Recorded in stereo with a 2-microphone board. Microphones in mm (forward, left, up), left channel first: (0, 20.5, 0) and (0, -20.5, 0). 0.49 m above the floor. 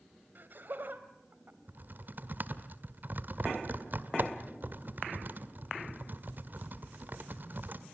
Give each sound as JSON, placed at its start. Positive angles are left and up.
{"t": 0.3, "sound": "laughter", "side_deg": -55, "distance_m": 3.0}
{"t": 1.7, "sound": "typing on a keyboard", "side_deg": -55, "distance_m": 1.7}